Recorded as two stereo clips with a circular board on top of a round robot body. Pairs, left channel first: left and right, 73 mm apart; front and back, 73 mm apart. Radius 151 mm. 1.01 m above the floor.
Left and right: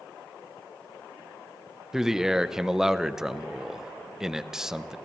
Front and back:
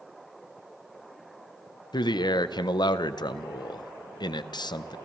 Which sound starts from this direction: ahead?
A man speaking, at 1.9 s.